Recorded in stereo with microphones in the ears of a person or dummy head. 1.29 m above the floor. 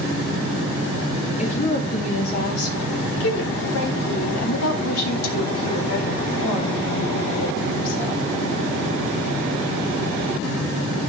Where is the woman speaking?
30° left (ahead or behind), 1.9 m; by 8.2 s 75° left (ahead or behind), 4 m.